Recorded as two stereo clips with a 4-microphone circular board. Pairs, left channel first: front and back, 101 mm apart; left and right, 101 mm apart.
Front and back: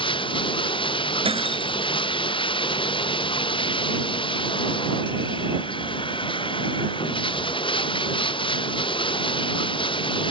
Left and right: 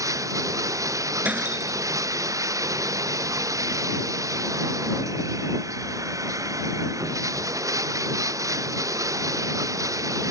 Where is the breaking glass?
165° right.